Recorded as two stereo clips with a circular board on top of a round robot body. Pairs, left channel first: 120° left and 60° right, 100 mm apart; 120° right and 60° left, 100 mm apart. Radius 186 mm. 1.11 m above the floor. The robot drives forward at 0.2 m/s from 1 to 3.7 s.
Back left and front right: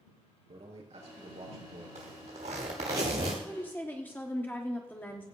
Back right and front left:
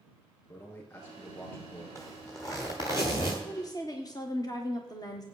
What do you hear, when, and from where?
0.5 s a man speaking: 60° right, 4.5 m; by 1.9 s 65° right, 4.5 m
1.9 s a zipper: 55° right, 1.0 m; by 3.3 s 80° right, 0.9 m
3.4 s a woman speaking: 170° right, 1.2 m